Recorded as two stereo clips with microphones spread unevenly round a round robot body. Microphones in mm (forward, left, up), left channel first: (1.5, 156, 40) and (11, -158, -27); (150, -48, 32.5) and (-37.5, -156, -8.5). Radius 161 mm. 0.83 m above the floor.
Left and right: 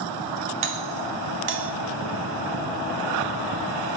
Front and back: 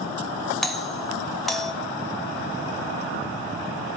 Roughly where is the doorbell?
Right.